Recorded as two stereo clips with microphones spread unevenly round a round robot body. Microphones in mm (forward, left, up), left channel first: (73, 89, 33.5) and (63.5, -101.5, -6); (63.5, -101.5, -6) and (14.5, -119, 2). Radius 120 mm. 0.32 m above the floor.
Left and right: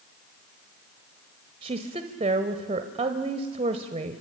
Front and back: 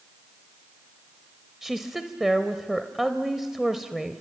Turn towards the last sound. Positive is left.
turn(degrees=-75)